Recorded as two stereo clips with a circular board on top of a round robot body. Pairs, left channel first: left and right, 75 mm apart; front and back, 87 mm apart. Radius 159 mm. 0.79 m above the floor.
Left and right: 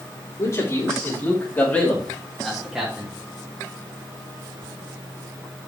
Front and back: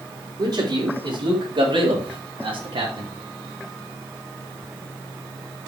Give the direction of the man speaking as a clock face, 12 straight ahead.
7 o'clock.